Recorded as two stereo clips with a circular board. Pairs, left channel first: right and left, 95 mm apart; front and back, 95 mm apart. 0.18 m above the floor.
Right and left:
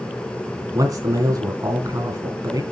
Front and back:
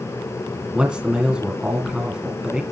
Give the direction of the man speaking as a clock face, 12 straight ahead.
8 o'clock.